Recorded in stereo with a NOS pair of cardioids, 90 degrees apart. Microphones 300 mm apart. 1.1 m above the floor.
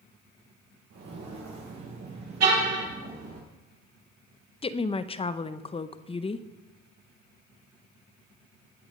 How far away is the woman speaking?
About 0.7 m.